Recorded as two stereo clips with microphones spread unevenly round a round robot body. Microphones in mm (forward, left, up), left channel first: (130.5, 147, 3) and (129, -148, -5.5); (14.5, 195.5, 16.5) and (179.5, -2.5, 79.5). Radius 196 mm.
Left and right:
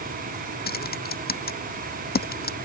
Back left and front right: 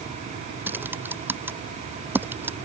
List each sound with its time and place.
0.7 s typing on a keyboard: 30° left